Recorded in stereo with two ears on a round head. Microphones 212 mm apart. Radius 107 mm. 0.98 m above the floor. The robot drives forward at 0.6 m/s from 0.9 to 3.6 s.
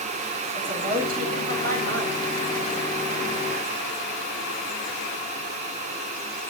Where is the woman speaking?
40° right (ahead or behind), 6.5 m; by 2.3 s 45° right (ahead or behind), 6 m.